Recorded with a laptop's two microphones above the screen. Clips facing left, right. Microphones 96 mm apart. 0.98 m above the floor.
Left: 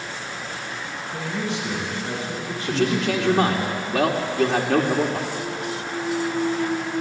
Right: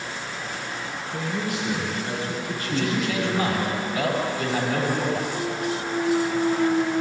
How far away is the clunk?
About 2 m.